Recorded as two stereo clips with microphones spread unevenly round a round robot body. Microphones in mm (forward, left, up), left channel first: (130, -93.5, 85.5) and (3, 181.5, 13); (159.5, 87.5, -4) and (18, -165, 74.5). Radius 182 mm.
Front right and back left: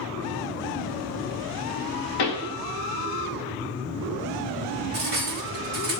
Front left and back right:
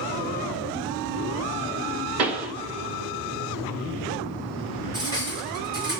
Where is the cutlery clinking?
155° left, 1.0 m.